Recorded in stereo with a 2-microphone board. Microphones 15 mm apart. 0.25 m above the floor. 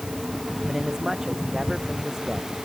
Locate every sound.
0.7 s a man speaking: 35° right (ahead or behind)